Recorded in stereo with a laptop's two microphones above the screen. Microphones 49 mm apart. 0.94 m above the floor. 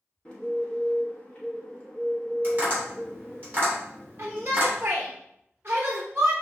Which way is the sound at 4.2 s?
40° right (ahead or behind).